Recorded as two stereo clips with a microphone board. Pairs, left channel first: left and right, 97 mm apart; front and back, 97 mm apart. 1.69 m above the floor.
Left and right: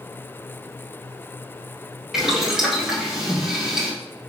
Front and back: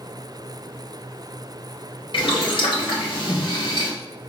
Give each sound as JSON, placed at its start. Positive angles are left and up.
{"t": 2.1, "sound": "boiling", "azimuth_deg": -5, "distance_m": 2.0}